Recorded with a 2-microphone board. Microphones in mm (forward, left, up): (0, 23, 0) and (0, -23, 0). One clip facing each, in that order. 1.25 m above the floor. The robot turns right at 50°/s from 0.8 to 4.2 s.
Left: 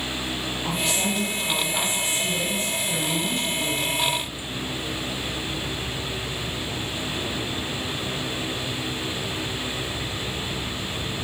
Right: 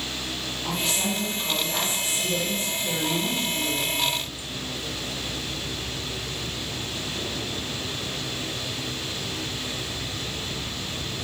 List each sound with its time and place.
0.6 s a woman speaking: 150° left, 2.5 m; by 4.2 s 45° right, 2.5 m